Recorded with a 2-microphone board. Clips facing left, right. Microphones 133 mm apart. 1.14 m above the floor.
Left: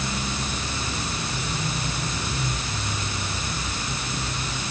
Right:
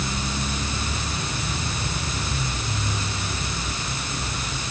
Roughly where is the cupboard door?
I don't hear a cupboard door.